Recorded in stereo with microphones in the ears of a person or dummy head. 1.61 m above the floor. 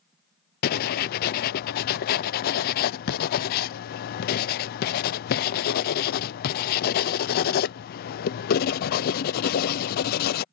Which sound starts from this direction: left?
Writing, at 0.6 s.